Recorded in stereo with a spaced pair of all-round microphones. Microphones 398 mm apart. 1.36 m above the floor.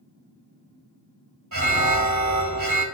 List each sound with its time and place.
1.5 s an alarm: 40° right (ahead or behind), 1.9 m